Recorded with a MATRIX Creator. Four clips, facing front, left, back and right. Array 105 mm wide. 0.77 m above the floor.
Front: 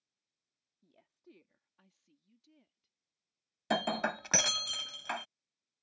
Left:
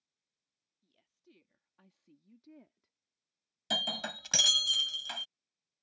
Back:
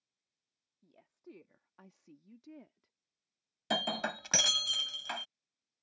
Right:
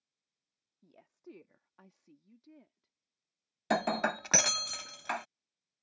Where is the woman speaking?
100° right; by 2.9 s 165° left.